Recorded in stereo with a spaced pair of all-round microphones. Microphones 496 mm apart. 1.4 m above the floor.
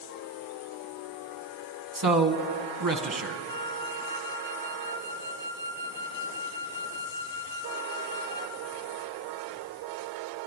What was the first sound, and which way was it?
A man speaking, 40° right (ahead or behind).